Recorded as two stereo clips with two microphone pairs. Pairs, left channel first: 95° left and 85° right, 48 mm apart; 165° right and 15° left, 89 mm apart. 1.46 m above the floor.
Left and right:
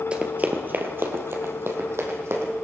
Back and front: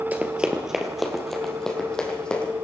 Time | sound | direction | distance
0.1 | running footsteps | 40° right | 1.6 m